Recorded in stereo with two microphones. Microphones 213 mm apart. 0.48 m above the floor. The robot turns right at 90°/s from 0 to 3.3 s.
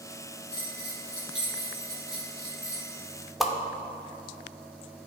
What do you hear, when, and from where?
0.5 s a bell: 150° right, 2.5 m; by 2.9 s 70° left, 2.5 m
3.4 s a whoosh: centre (ahead or behind), 0.7 m